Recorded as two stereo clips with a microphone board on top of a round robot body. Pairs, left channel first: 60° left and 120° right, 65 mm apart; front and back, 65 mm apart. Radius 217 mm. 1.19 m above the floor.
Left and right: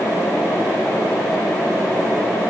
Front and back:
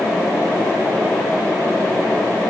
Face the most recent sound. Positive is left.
No sound to turn to.